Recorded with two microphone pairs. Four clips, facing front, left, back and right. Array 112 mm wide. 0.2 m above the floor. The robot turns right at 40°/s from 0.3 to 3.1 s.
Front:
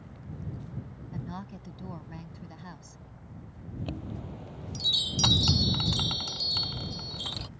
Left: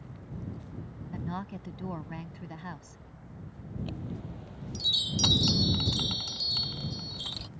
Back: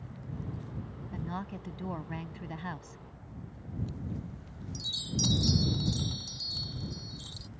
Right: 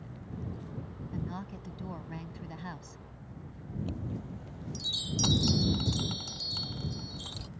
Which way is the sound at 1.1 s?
105° left.